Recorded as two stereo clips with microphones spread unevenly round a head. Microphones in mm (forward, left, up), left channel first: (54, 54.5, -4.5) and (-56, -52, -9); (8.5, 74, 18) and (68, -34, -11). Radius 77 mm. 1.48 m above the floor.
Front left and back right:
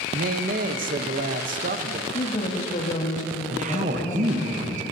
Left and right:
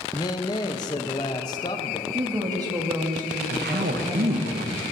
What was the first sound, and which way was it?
A man speaking, 175° right.